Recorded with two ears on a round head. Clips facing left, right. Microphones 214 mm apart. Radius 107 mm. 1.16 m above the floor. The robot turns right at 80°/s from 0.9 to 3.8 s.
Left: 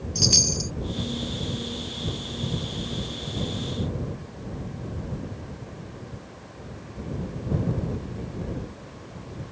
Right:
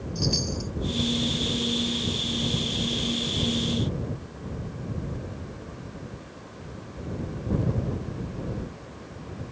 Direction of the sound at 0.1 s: 65° left (ahead or behind).